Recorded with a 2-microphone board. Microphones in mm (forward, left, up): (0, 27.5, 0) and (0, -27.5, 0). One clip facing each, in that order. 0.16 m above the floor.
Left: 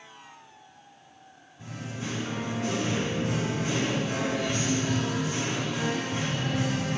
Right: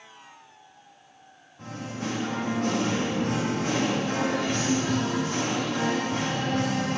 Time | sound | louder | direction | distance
1.6 | singing | right 3 dB | 70° right (ahead or behind) | 3 m